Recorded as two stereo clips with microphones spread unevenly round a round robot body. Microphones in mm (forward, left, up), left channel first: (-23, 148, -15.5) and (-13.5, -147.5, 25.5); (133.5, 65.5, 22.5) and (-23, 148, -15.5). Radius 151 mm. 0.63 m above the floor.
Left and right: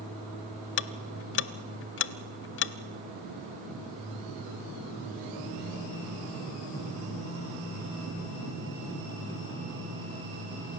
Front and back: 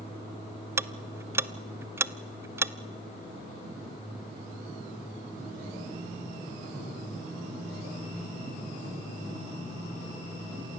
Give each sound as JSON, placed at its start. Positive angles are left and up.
{"t": 0.8, "sound": "ticking", "azimuth_deg": 70, "distance_m": 0.5}